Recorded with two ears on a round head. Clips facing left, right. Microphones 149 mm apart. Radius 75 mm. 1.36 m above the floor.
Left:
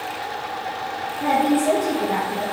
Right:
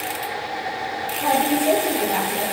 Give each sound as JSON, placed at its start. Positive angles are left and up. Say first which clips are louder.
{"t": 1.2, "sound": "a woman speaking", "louder": "left 1 dB", "side_deg": 20, "distance_m": 3.0}